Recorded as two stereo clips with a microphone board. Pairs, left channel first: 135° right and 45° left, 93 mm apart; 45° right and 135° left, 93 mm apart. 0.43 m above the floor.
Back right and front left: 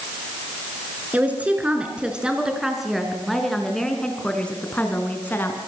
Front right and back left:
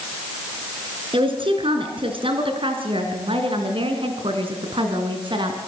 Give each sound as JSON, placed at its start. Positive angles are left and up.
{"t": 1.1, "sound": "a woman speaking", "azimuth_deg": 115, "distance_m": 5.0}